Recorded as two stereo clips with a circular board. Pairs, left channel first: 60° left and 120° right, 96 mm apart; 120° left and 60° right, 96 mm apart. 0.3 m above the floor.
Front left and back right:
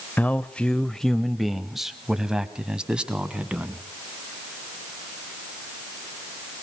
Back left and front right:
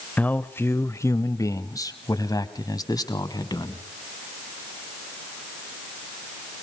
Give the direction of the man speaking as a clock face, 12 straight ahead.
9 o'clock.